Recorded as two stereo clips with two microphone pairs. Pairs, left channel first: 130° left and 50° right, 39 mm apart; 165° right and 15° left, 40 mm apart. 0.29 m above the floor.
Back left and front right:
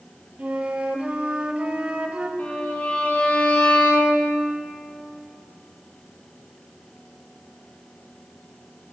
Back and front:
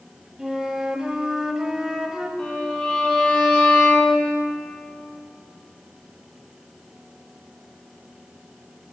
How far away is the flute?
About 0.6 m.